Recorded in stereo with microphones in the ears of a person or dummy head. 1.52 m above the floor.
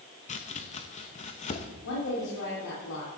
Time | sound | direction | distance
0.3 | chopping | 30° left (ahead or behind) | 0.9 m
1.9 | a woman speaking | 85° left | 4 m